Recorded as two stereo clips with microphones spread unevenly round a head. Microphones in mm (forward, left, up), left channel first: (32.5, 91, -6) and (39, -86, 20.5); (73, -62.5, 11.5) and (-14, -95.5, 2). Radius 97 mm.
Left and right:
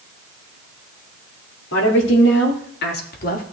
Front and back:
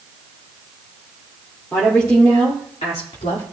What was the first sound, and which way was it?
A woman speaking, 100° left.